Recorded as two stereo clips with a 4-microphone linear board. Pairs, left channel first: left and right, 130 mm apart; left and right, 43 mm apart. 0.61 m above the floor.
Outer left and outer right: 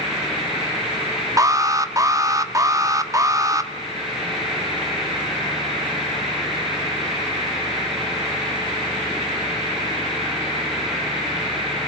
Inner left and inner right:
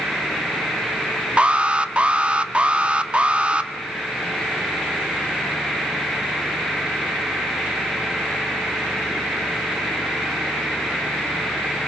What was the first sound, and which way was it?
An alarm, 25° right (ahead or behind).